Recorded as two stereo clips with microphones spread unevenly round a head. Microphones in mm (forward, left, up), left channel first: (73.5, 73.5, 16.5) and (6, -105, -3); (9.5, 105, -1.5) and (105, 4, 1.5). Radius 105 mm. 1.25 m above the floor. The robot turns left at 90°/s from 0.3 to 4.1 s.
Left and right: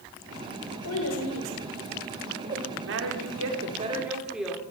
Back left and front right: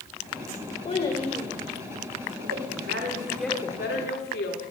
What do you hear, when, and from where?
0.8 s a child speaking: 90° left, 4 m; by 2.6 s 70° right, 4 m
2.8 s a woman speaking: 75° right, 3.5 m; by 4.7 s 160° left, 3.5 m